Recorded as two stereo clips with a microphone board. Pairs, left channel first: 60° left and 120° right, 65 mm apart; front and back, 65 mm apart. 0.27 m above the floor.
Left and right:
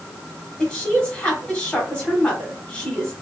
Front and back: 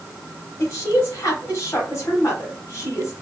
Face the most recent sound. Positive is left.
turn(degrees=-5)